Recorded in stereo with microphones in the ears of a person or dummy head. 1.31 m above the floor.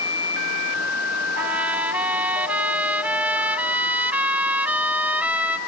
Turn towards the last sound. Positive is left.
turn(degrees=-10)  # may be behind; listen again after turning